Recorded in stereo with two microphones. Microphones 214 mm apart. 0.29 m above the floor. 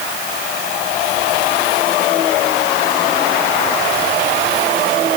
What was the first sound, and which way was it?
Only background noise.